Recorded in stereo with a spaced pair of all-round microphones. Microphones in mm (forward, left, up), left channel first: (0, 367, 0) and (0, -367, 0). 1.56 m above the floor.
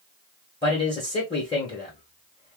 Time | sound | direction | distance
0.6 | a man speaking | 5° left (ahead or behind) | 1.6 m